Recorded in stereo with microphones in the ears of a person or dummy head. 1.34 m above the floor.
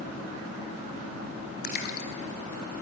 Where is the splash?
55° left (ahead or behind), 2.5 m.